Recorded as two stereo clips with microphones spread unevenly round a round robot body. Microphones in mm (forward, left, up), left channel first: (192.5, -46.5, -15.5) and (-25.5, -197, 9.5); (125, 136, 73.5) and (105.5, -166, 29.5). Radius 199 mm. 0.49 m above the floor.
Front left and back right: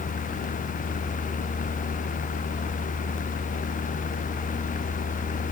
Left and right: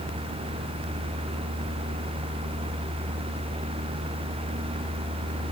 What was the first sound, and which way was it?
Only background noise.